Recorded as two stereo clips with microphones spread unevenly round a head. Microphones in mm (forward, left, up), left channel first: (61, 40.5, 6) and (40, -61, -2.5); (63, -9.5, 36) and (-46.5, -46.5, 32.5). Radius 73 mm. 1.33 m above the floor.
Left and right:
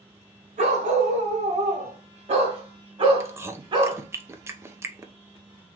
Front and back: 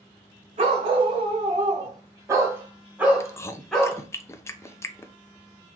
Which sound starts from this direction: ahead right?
Chewing, at 3.2 s.